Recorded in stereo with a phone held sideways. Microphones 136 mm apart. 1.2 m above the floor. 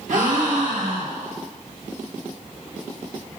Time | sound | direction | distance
0.1 | a gasp | 65° right (ahead or behind) | 1.1 m